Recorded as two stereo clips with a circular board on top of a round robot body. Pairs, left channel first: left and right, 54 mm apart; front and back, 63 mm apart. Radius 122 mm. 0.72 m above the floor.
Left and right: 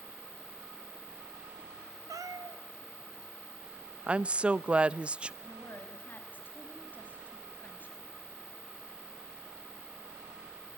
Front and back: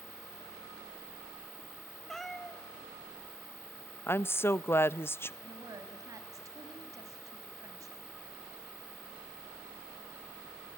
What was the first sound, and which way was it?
A cat meowing, 85° right.